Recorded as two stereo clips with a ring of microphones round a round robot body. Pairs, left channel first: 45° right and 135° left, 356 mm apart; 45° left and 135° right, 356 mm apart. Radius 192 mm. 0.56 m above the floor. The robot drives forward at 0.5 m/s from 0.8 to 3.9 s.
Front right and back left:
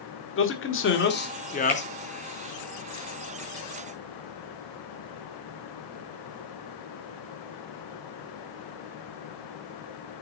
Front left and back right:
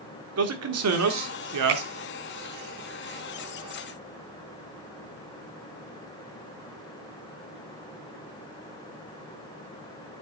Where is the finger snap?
130° right, 4 m.